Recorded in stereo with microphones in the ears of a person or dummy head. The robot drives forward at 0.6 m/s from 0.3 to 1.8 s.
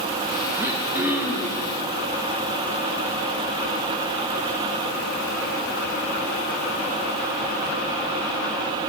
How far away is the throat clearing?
About 1.3 m.